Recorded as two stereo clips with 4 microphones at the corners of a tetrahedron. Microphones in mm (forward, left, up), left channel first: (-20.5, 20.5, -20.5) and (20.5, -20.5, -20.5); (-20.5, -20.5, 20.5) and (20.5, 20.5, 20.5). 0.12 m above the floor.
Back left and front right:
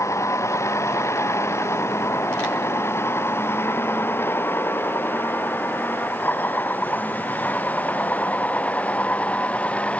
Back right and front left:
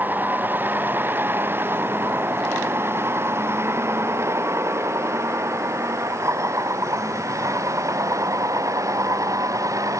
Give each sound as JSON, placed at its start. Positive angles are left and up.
{"t": 0.0, "sound": "a vehicle", "azimuth_deg": 100}